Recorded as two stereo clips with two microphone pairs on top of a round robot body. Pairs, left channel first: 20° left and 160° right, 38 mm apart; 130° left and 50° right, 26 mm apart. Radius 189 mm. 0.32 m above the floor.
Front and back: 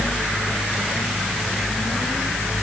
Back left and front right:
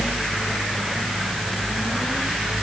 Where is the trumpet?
No trumpet in this recording.